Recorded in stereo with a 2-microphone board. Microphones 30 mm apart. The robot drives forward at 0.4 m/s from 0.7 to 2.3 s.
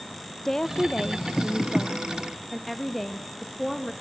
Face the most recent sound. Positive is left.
turn(degrees=10)  # may be behind; listen again after turning